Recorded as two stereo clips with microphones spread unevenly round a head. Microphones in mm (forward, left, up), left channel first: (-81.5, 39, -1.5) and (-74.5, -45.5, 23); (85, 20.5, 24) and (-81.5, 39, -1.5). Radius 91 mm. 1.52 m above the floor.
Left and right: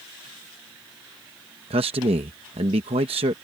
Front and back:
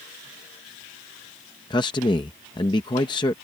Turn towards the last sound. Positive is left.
turn(degrees=-75)